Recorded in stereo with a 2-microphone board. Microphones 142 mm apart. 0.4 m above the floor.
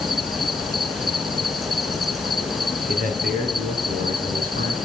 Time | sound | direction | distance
0.0 | an insect | centre (ahead or behind) | 1.1 m
2.9 | a man speaking | 75° right (ahead or behind) | 4 m